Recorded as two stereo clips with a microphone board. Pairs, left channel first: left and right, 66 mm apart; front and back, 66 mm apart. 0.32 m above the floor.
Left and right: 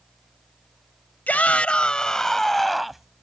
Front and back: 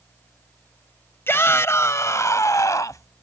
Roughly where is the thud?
No thud in this recording.